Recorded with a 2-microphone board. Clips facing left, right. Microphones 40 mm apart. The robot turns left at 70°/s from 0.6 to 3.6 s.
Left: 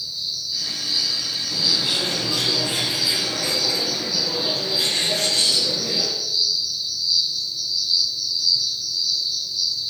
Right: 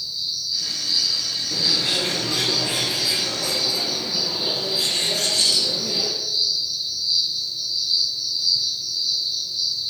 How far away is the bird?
About 3.5 m.